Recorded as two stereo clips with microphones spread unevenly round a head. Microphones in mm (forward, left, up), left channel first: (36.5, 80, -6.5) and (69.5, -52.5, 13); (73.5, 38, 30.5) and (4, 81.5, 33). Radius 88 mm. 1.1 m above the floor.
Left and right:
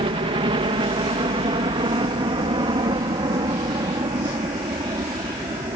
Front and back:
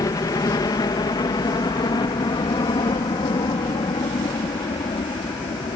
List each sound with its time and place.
0.0 s a helicopter: 45° right; by 5.8 s 15° right